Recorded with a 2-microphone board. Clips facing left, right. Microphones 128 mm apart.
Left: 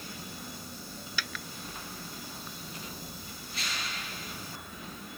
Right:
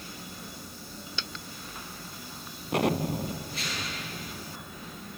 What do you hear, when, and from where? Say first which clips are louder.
1.2 s a dropped coin: left 3 dB; 25° right (ahead or behind)
2.7 s an explosion: right 17 dB; 65° right (ahead or behind)